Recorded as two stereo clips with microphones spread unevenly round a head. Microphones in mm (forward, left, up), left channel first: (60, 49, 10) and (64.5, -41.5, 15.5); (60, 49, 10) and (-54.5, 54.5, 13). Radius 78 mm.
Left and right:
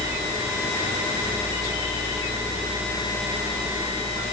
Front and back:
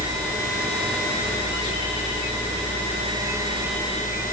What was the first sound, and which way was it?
Only background noise.